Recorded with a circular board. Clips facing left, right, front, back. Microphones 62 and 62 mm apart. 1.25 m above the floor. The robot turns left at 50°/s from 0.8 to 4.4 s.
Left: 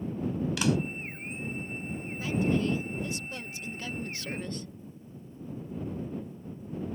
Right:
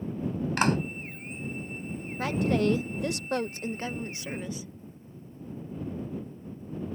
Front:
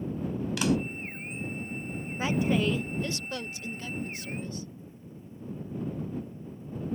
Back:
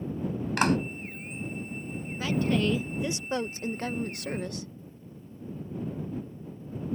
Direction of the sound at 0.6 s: 135° right.